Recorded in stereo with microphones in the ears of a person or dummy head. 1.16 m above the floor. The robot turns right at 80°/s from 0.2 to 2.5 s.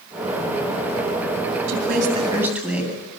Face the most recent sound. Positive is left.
turn(degrees=-5)